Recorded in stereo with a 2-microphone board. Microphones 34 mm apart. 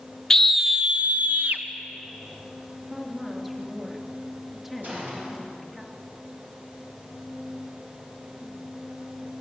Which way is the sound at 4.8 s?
55° right (ahead or behind).